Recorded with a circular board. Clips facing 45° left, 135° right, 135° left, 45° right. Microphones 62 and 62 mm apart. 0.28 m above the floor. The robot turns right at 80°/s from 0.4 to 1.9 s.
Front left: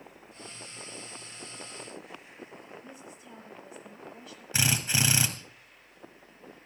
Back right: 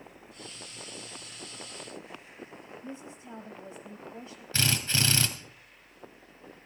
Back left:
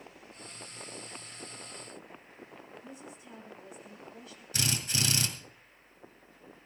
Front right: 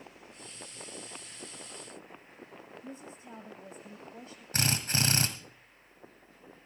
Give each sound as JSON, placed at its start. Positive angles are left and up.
{"t": 2.8, "sound": "a woman speaking", "azimuth_deg": -85, "distance_m": 1.3}
{"t": 4.5, "sound": "a drill", "azimuth_deg": -25, "distance_m": 2.0}